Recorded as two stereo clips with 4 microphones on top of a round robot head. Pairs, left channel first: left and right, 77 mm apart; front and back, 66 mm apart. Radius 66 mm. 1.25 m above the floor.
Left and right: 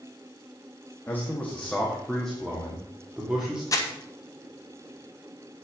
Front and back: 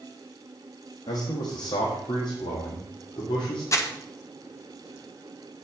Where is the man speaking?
25° left, 1.7 m; by 3.6 s 10° right, 3 m.